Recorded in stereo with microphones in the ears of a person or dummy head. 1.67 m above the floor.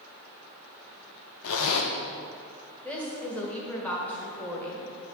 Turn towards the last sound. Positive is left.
turn(degrees=10)  # may be behind; listen again after turning